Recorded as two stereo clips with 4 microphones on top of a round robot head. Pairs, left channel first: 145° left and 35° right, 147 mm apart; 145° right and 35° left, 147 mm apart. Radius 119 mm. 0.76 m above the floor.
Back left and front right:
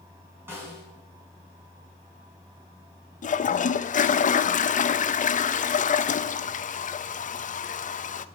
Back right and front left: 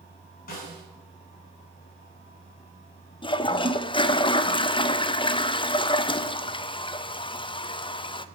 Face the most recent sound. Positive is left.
turn(degrees=165)